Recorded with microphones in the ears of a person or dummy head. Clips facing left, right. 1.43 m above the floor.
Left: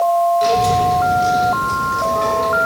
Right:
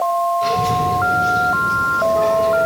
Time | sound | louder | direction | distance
0.4 | a child speaking | left 4 dB | 70° left (ahead or behind) | 3.5 m